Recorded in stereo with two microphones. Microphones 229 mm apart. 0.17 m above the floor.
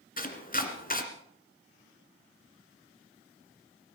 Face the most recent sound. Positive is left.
turn(degrees=40)  # may be behind; listen again after turning